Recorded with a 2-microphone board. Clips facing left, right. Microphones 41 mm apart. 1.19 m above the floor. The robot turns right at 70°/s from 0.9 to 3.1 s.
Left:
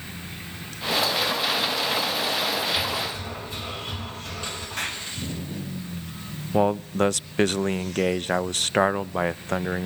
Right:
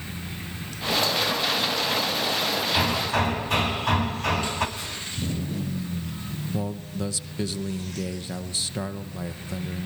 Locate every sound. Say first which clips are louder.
2.8 s hammering: right 4 dB; 80° right, 4.5 m; by 4.7 s 75° right (ahead or behind), 4.5 m
4.8 s an explosion: left 5 dB; 75° left (ahead or behind), 7 m
6.5 s a man speaking: left 12 dB; 60° left (ahead or behind), 0.6 m